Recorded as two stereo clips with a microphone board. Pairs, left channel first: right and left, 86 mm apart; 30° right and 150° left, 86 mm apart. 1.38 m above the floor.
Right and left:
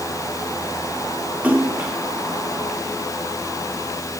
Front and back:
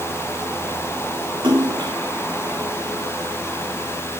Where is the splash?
165° left, 3 m.